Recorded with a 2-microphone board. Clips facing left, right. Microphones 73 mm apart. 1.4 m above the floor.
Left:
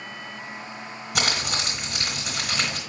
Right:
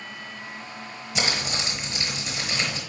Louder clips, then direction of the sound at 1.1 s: Left 1 dB; 65° left (ahead or behind).